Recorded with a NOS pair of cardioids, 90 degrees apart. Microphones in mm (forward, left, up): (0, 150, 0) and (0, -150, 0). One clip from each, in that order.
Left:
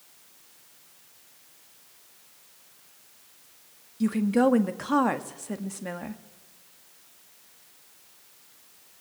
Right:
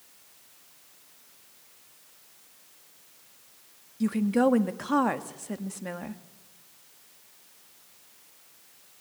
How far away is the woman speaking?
About 1.9 m.